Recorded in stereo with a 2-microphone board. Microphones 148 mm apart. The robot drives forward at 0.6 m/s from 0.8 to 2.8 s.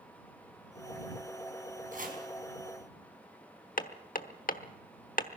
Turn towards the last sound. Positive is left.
turn(degrees=65)  # may be behind; listen again after turning